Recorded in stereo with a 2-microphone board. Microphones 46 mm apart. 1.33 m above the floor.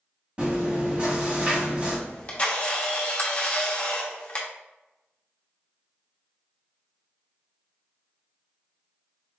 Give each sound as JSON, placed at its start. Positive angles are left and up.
{"t": 0.4, "sound": "chewing", "side_deg": -30, "distance_m": 1.5}
{"t": 2.1, "sound": "a camera shutter", "side_deg": 25, "distance_m": 0.9}